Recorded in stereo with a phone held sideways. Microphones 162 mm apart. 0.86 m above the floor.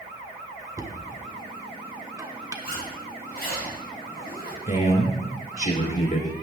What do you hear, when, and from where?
0.8 s knocking: 20° right (ahead or behind), 1.3 m
2.6 s a zipper: 70° left (ahead or behind), 3 m
4.7 s a man speaking: 55° left (ahead or behind), 3 m